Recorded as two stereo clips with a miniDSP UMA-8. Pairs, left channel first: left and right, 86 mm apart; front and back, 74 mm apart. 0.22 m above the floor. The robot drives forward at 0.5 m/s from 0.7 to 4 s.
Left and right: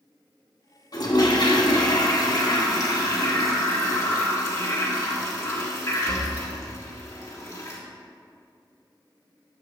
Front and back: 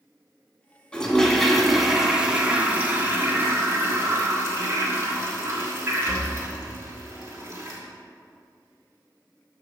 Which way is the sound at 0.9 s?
75° left.